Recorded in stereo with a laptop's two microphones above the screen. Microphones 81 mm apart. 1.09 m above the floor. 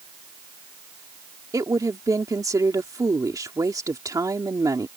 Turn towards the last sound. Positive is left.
turn(degrees=-45)  # may be behind; listen again after turning